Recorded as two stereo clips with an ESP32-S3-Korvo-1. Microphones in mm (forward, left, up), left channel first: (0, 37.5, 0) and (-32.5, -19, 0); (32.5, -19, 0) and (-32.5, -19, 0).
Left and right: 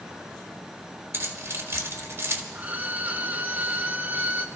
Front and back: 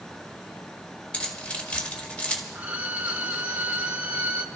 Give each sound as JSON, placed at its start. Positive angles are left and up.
{"t": 1.1, "sound": "keys jangling", "azimuth_deg": -70, "distance_m": 1.7}
{"t": 2.5, "sound": "a violin", "azimuth_deg": -145, "distance_m": 0.9}